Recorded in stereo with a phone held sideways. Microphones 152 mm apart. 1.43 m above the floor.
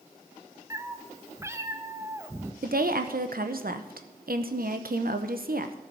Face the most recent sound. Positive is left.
turn(degrees=-75)  # may be behind; listen again after turning